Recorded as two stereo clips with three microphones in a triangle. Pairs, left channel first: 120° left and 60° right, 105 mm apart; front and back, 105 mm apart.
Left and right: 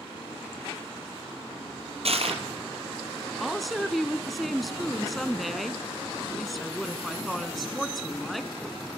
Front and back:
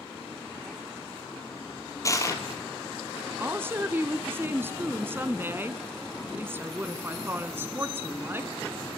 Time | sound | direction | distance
2.0 | crushing | 60° right | 2.5 m
3.4 | a woman speaking | 150° right | 1.1 m